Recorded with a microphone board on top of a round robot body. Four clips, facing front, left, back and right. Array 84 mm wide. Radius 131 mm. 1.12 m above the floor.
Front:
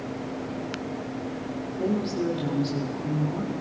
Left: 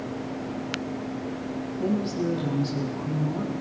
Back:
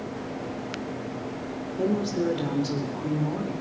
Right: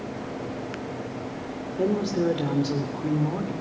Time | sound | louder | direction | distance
1.8 | a woman speaking | right 3 dB, back 1 dB | 110° right | 4 m